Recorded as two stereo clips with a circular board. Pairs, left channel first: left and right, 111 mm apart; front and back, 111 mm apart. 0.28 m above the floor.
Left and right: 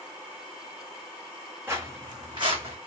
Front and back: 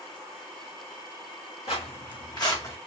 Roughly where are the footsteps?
Ahead.